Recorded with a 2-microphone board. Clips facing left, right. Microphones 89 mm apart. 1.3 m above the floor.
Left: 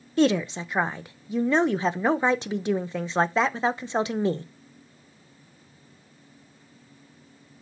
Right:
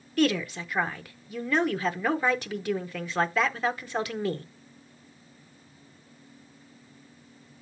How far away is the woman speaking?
About 0.7 m.